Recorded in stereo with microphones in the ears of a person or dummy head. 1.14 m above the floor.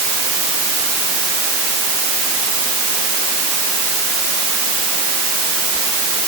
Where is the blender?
I don't hear a blender.